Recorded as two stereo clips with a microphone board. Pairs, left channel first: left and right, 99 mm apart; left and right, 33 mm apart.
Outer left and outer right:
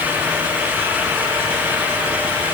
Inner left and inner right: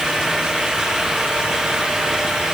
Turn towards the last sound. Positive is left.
No sound to turn to.